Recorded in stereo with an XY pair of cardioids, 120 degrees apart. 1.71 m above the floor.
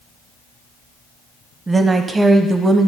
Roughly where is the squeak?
No squeak in this recording.